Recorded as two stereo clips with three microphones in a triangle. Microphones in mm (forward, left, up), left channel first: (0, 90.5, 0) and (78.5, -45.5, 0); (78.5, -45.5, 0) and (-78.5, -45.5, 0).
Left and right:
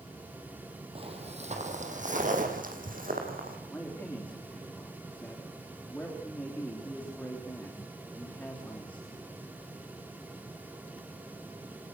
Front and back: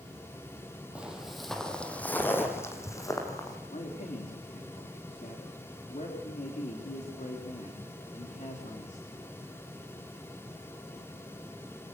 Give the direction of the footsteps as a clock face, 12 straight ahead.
3 o'clock.